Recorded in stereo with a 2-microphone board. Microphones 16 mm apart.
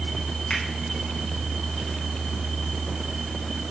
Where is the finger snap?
70° left (ahead or behind), 5 m.